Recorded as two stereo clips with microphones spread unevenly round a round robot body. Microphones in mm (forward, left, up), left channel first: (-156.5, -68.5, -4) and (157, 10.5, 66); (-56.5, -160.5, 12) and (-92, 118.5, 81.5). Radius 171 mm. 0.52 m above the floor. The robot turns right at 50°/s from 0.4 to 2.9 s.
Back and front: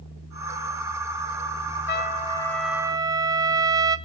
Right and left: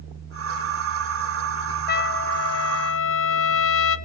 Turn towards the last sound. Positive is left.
turn(degrees=-70)